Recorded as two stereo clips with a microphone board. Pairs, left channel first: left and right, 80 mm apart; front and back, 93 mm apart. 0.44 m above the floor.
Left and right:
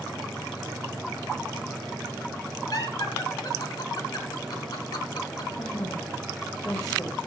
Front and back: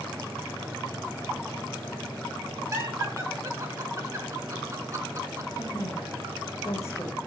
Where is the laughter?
125° left, 4.5 m.